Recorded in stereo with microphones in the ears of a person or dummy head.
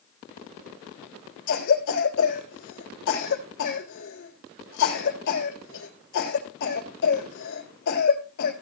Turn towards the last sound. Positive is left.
turn(degrees=60)  # may be behind; listen again after turning